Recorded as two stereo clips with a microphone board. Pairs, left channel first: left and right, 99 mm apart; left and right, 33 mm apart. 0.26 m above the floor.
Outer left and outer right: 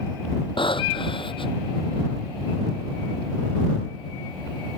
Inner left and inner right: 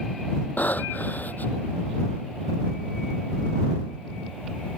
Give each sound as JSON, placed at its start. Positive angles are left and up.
{"t": 0.6, "sound": "breathing", "side_deg": 60}